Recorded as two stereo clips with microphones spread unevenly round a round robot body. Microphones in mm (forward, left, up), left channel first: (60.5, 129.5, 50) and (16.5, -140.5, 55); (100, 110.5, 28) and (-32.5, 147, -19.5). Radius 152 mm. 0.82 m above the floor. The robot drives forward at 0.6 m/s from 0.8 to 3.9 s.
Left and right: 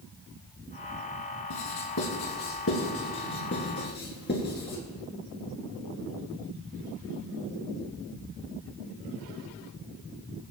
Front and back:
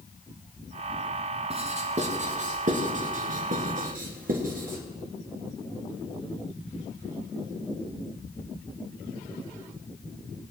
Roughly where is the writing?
Behind left.